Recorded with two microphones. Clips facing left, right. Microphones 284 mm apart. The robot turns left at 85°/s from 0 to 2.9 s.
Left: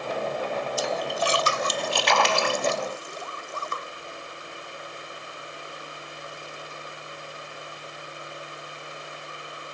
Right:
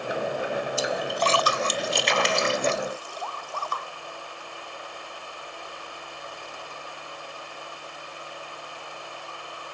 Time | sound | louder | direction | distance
0.8 | a splash | even | 30° right (ahead or behind) | ?